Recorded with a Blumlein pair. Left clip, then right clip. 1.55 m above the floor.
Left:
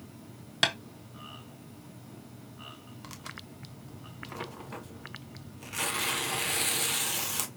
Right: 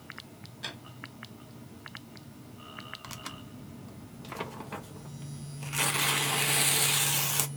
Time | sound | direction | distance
0.6 | tapping | 45° left | 1.2 m
3.0 | tearing paper | 10° right | 0.7 m